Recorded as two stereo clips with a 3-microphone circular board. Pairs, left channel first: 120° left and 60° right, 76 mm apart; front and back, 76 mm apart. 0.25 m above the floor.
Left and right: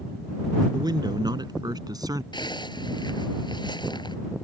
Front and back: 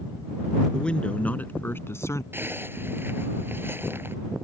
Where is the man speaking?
75° right; by 2.2 s 40° right.